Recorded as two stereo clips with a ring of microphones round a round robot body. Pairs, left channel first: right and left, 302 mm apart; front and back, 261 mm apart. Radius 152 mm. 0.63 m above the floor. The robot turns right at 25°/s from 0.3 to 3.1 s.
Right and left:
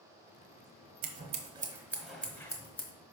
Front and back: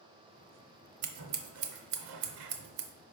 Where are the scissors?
155° left, 0.8 m; by 2.9 s 160° right, 0.8 m.